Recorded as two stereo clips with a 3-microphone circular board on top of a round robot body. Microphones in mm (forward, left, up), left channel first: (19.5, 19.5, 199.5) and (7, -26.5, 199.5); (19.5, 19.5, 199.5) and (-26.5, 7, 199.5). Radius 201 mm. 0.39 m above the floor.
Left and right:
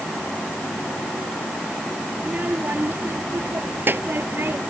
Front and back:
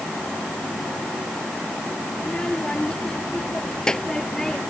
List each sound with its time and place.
2.2 s a child speaking: 55° right; by 4.6 s 65° right